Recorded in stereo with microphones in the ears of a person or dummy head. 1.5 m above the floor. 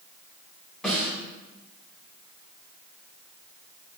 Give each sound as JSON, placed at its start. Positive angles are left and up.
{"t": 0.8, "sound": "a snare drum", "side_deg": -5, "distance_m": 4.5}